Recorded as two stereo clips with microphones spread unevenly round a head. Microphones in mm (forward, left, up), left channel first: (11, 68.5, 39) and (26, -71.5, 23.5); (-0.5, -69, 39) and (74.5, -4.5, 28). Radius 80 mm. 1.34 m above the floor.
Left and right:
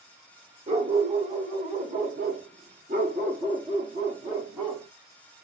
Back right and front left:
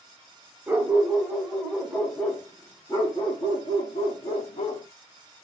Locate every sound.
0.7 s a dog barking: 35° right, 1.6 m; by 4.9 s 160° right, 1.5 m